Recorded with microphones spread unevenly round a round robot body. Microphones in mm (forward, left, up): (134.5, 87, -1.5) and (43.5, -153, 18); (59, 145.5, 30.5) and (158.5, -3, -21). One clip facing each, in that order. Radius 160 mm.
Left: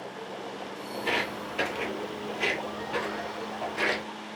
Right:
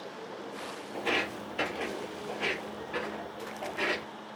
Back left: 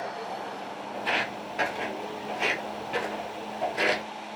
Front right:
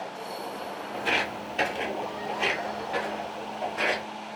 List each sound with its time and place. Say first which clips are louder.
0.9 s footsteps: left 1 dB, front right 1 dB; 50° right, 0.8 m; by 4.0 s 110° left, 1.3 m